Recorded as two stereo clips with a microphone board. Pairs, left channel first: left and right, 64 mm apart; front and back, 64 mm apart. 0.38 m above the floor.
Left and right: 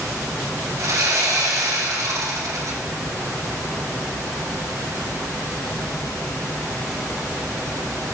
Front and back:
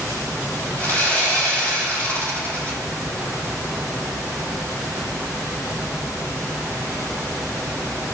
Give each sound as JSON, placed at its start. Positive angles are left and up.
{"t": 0.8, "sound": "sawing", "azimuth_deg": -60, "distance_m": 2.0}